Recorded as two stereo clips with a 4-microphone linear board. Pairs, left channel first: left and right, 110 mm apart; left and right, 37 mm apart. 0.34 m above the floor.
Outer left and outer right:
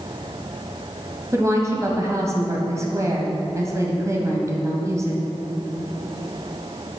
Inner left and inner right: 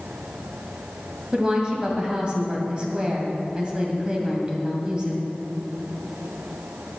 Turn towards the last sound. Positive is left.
turn(degrees=-25)  # may be behind; listen again after turning